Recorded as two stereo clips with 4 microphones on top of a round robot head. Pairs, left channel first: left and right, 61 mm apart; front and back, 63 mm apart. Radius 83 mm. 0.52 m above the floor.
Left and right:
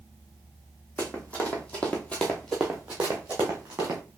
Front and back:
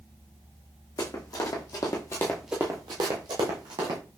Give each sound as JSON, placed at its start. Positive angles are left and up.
{"t": 1.0, "sound": "running footsteps", "azimuth_deg": 20, "distance_m": 1.4}